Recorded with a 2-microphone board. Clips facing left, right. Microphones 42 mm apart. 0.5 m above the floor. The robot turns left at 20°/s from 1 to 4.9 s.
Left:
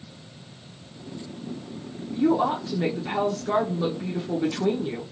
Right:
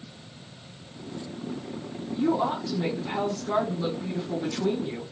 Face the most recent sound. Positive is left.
turn(degrees=65)